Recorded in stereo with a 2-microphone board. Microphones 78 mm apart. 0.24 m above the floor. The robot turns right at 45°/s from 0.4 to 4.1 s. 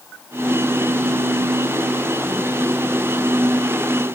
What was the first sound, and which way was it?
Only background noise.